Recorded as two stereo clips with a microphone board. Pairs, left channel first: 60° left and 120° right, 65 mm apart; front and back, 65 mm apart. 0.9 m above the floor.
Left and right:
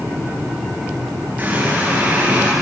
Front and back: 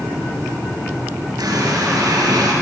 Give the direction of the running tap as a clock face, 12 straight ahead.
6 o'clock.